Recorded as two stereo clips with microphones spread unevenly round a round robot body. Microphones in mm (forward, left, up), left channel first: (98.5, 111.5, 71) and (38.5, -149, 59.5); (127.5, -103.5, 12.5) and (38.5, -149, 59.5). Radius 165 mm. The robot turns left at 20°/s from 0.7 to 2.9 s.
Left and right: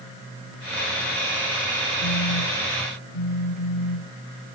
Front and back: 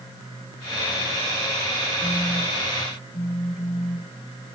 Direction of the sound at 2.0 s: 105° left.